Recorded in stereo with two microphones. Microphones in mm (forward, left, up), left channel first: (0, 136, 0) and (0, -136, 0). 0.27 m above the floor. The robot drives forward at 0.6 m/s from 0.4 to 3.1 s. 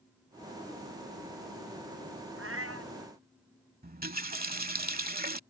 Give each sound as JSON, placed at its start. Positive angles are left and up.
{"t": 2.4, "sound": "a cat meowing", "side_deg": -50}
{"t": 3.8, "sound": "a running tap", "side_deg": -35}